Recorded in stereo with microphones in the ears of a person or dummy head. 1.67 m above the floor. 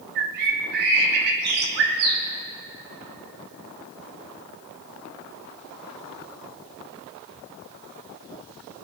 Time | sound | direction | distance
0.1 | a bird | 50° right (ahead or behind) | 1.3 m